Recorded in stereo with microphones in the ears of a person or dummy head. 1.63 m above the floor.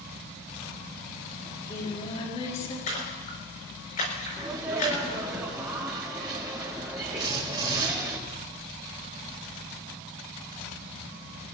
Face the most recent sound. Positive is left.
turn(degrees=-25)  # may be behind; listen again after turning